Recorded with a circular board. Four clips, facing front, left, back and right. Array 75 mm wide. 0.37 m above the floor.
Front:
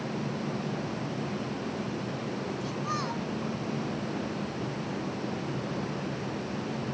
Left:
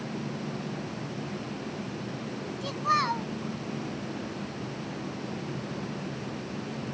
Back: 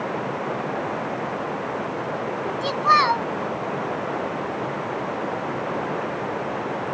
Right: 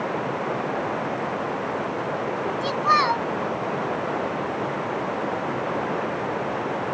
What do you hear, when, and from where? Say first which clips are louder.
0.0 s running water: right 9 dB, back 7 dB; 135° right
2.6 s a child speaking: right 6 dB, back 19 dB; 160° right